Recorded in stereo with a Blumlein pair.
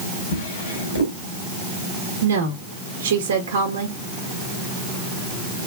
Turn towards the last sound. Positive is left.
turn(degrees=-60)